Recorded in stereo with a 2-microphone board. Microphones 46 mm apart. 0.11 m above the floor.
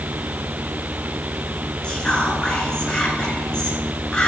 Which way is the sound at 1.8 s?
20° left (ahead or behind).